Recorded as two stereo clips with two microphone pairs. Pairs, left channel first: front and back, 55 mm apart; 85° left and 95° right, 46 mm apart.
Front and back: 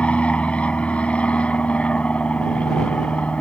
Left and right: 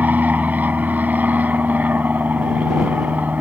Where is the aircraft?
55° right.